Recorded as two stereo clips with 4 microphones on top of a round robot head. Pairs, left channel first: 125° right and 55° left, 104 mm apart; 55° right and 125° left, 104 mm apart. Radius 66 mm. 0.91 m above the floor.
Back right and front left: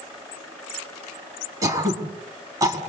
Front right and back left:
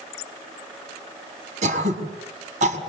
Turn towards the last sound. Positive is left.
turn(degrees=115)